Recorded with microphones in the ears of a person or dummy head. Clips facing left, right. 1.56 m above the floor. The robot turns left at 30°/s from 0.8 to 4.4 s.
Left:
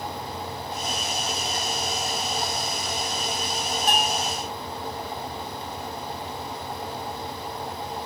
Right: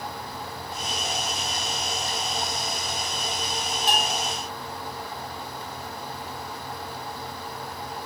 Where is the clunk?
No clunk in this recording.